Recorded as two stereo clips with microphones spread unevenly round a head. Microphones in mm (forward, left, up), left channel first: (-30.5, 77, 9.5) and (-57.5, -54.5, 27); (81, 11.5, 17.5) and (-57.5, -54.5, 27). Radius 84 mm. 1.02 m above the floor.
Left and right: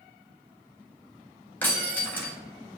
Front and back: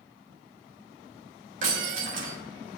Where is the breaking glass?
155° left, 3.5 m.